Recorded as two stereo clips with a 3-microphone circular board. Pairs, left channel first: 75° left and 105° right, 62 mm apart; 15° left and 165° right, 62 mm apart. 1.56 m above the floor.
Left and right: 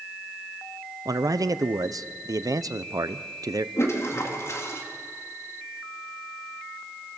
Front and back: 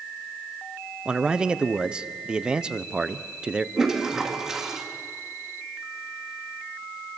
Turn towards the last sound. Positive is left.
turn(degrees=115)